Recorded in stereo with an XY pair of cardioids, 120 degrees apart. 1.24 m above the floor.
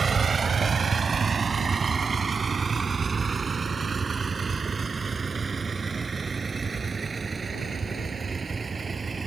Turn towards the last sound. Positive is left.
turn(degrees=-25)